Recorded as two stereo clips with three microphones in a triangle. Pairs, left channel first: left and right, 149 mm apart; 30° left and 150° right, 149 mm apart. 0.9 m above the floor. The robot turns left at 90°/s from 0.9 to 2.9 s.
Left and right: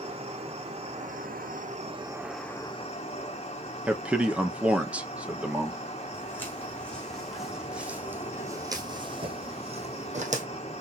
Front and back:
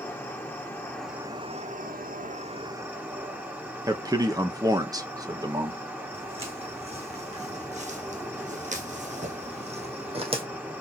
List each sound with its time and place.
0.0 s an insect: 45° right, 1.3 m; by 10.8 s 135° left, 1.3 m
3.9 s a man speaking: 160° right, 0.8 m
6.1 s footsteps: 165° left, 2 m; by 10.4 s 105° right, 1.7 m